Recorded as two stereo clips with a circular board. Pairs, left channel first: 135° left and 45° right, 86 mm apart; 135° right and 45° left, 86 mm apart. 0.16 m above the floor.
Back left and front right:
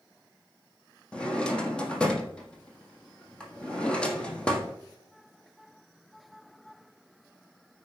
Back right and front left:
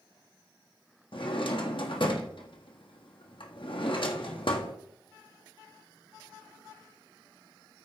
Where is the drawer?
145° right, 1.5 m.